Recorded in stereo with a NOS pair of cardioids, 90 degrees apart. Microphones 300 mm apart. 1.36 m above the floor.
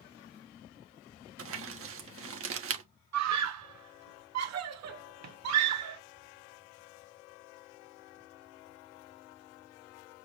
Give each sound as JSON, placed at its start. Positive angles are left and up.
{"t": 1.4, "sound": "crumpling", "azimuth_deg": -45, "distance_m": 1.1}
{"t": 3.1, "sound": "a scream", "azimuth_deg": -60, "distance_m": 1.3}